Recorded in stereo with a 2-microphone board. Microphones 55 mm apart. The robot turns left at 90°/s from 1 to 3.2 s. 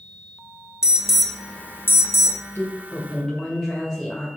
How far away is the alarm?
About 0.7 m.